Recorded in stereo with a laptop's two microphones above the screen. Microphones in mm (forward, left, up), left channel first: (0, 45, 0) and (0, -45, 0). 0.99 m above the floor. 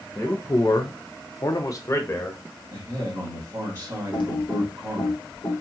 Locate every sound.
0.1 s a man speaking: 20° left (ahead or behind), 0.6 m; by 2.4 s 35° left (ahead or behind), 1.3 m
2.7 s a man speaking: 30° right (ahead or behind), 2.0 m
4.1 s typing on a keyboard: 65° left (ahead or behind), 1.4 m